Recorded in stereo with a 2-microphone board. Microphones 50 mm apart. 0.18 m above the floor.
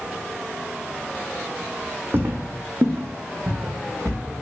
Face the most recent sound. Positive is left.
turn(degrees=-85)